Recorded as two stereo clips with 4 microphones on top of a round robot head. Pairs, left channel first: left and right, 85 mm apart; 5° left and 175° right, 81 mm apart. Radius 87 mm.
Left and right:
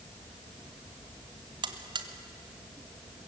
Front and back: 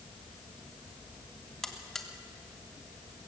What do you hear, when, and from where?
1.6 s a buzzer: 80° right, 1.6 m